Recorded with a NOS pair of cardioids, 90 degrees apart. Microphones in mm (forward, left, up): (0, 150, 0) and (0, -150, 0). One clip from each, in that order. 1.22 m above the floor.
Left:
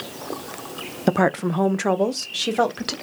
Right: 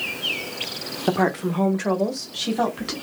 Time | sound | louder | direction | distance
1.1 | a woman speaking | left 2 dB | 35° left | 0.5 m